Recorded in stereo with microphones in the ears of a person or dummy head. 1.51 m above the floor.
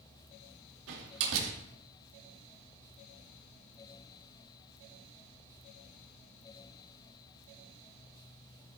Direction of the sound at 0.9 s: 75° right (ahead or behind).